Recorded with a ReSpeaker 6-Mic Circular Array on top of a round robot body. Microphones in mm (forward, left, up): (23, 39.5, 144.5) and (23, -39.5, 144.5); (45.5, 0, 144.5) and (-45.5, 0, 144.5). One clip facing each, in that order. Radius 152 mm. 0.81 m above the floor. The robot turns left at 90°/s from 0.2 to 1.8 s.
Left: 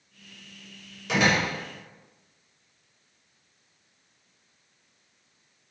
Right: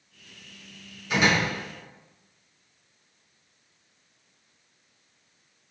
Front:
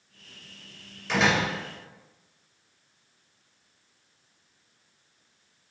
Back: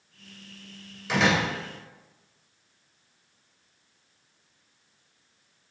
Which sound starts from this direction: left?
A door slam, at 1.1 s.